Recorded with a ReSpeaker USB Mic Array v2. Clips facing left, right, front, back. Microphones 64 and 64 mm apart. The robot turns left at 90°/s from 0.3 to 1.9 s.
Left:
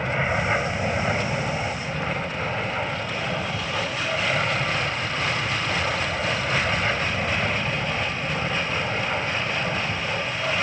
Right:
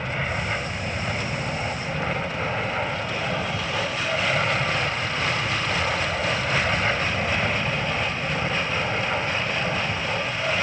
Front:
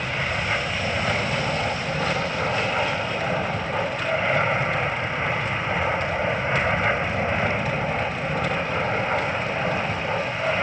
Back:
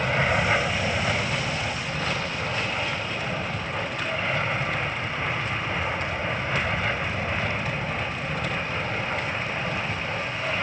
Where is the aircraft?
135° left; by 10.6 s 10° right.